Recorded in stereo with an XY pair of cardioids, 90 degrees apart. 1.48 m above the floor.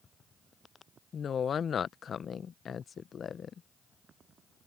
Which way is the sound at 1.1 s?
55° left.